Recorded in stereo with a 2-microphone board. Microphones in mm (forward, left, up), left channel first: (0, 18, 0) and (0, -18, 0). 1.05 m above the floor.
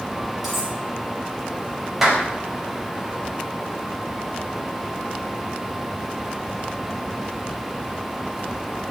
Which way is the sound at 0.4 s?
Centre (ahead or behind).